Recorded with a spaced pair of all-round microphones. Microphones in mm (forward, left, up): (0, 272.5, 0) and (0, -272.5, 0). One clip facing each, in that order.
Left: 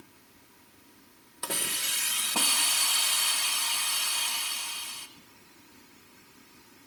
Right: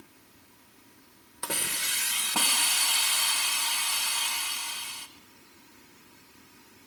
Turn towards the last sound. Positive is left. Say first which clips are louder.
# even
turn(degrees=-5)  # may be behind; listen again after turning